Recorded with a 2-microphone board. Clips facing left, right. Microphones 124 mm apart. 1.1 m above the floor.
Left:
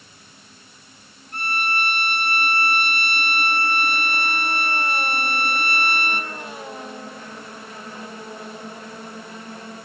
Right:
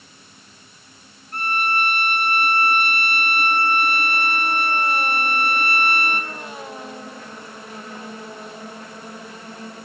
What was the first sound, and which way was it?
A violin, 40° right (ahead or behind).